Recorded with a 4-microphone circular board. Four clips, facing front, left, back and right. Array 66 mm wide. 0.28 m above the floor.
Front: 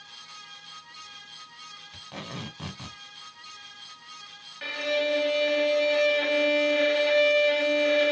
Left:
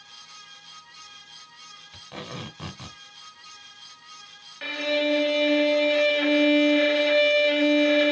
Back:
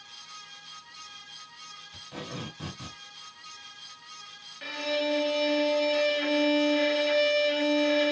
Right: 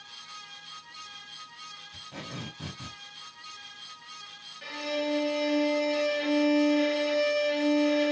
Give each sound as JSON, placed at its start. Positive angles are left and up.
{"t": 1.9, "sound": "tape being pulled", "azimuth_deg": 60, "distance_m": 1.6}
{"t": 4.6, "sound": "a violin", "azimuth_deg": 75, "distance_m": 0.6}